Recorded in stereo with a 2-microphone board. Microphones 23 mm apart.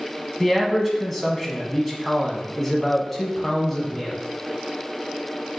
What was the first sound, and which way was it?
A man speaking, 10° left (ahead or behind).